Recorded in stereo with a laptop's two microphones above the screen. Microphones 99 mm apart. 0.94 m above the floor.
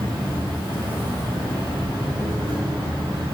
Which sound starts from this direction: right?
An insect, at 0.0 s.